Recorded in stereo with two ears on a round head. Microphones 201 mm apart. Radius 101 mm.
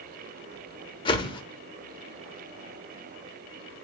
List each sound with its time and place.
1.1 s a whoosh: 25° left (ahead or behind), 1.2 m